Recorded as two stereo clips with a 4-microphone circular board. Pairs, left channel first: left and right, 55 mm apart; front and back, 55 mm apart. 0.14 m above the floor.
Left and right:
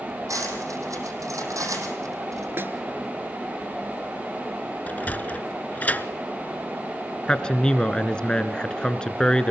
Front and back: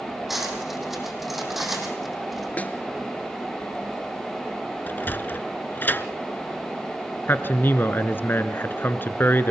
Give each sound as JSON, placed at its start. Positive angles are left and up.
{"t": 0.3, "sound": "cutlery clinking", "azimuth_deg": -95, "distance_m": 4.0}
{"t": 2.6, "sound": "a snare drum", "azimuth_deg": -55, "distance_m": 1.4}
{"t": 4.9, "sound": "a sliding door", "azimuth_deg": 40, "distance_m": 0.8}
{"t": 7.3, "sound": "a man speaking", "azimuth_deg": 25, "distance_m": 1.4}